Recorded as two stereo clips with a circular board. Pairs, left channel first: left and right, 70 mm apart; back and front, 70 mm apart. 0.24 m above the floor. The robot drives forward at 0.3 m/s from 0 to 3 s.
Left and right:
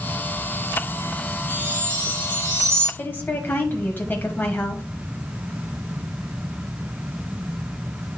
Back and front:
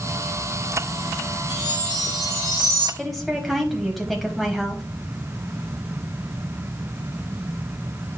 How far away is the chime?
About 4.5 m.